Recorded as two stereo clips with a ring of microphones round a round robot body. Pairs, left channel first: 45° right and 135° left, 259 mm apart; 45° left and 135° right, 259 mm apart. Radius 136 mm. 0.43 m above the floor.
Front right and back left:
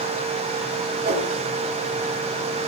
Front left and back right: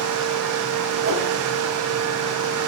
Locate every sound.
1.0 s a whoosh: 170° right, 4.5 m